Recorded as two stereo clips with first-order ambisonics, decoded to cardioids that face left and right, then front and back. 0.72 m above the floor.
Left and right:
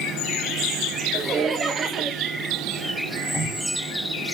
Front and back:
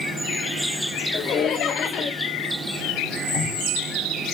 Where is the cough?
155° left, 1.8 m.